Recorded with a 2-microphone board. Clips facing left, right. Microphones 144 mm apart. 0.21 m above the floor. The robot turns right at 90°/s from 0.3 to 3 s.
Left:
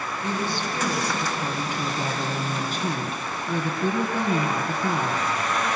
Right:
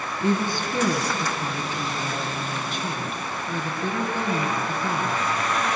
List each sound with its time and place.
0.2 s a woman speaking: 105° right, 2 m; by 5.2 s 140° left, 2 m